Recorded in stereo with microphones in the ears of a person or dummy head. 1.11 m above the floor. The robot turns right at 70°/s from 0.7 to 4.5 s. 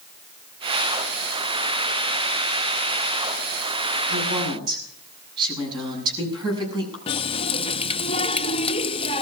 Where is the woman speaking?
55° right (ahead or behind), 7.5 m; by 7.0 s 25° right (ahead or behind), 7.5 m.